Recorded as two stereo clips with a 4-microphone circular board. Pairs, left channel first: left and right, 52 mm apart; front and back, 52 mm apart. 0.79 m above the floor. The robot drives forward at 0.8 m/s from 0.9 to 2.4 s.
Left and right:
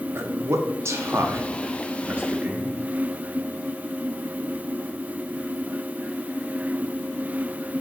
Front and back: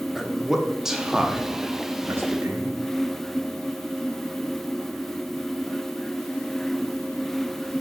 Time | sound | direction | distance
0.1 | a man speaking | 100° right | 1.1 m